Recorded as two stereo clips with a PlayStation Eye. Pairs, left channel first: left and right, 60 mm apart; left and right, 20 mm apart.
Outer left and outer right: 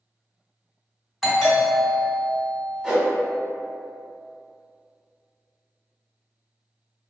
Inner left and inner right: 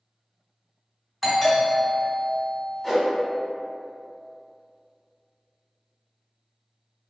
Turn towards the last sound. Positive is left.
turn(degrees=-15)  # may be behind; listen again after turning